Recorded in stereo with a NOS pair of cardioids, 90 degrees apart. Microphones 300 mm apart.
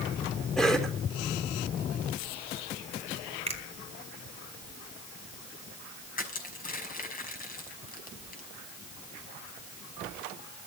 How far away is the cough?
About 4.5 m.